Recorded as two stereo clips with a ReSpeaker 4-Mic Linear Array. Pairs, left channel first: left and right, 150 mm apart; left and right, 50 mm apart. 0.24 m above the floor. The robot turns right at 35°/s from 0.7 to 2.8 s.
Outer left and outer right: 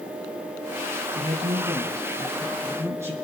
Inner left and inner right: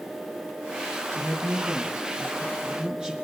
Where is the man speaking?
80° right, 3 m; by 3.1 s 20° right, 3 m.